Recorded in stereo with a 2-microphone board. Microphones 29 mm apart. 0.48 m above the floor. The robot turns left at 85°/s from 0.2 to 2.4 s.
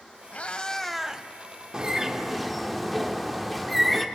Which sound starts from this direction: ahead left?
A cat meowing, at 0.3 s.